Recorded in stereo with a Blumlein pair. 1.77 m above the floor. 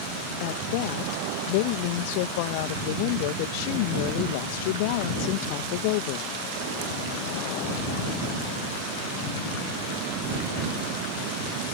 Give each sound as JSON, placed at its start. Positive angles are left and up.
{"t": 0.4, "sound": "a woman speaking", "azimuth_deg": 45}